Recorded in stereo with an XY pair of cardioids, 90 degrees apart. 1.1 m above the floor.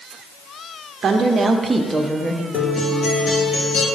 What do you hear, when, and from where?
1.0 s a woman speaking: 60° right, 0.7 m; by 2.4 s straight ahead, 1.0 m
2.5 s a guitar: 55° left, 1.3 m